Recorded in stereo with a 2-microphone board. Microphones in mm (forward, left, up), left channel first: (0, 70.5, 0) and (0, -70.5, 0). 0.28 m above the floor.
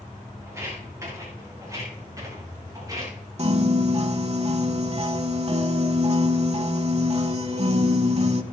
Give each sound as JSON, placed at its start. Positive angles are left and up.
{"t": 0.5, "sound": "footsteps", "side_deg": -20, "distance_m": 9.0}
{"t": 3.4, "sound": "a piano", "side_deg": -50, "distance_m": 0.9}